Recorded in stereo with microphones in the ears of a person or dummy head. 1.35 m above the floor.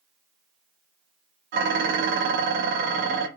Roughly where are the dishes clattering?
Right.